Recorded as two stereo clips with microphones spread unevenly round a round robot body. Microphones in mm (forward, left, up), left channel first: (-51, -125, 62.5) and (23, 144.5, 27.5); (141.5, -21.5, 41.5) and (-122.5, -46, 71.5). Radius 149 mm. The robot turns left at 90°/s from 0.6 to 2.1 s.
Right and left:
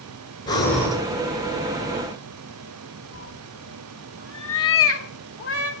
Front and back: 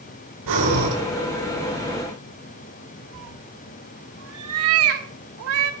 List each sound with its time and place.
0.5 s breathing: straight behind, 7 m; by 1.0 s 145° left, 7 m
3.1 s a cat meowing: 145° right, 2 m